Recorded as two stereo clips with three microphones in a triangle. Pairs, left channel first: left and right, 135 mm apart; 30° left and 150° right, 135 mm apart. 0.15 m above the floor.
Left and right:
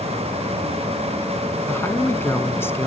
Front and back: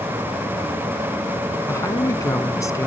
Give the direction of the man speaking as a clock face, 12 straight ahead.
10 o'clock.